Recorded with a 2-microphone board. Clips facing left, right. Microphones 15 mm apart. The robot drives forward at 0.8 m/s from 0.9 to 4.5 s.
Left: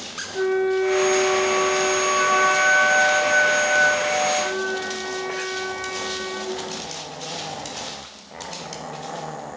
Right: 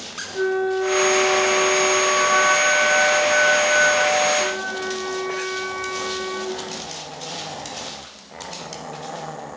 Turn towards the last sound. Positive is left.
turn(degrees=5)  # may be behind; listen again after turning